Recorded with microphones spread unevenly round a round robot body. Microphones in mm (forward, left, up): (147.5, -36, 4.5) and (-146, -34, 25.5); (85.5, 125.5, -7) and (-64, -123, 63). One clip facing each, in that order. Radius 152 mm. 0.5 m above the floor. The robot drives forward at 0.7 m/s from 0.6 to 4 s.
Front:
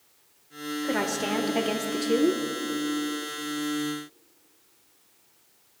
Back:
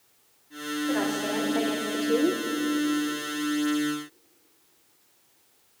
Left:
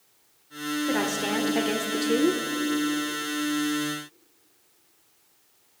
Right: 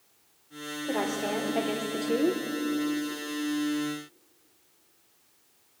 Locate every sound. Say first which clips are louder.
0.8 s a woman speaking: back 2 dB, left 1 dB; 15° left, 1.5 m; by 2.4 s 65° left, 0.8 m